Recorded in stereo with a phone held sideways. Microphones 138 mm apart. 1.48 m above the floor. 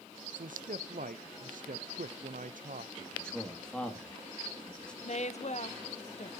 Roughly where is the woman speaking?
Left.